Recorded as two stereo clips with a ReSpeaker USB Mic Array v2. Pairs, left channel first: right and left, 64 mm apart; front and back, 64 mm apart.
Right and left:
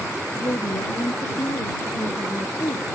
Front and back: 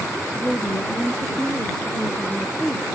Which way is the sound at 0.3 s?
80° right.